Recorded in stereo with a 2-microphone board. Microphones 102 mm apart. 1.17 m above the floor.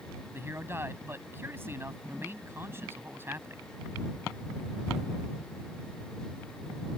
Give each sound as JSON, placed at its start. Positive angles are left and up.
{"t": 0.3, "sound": "a man speaking", "side_deg": -20}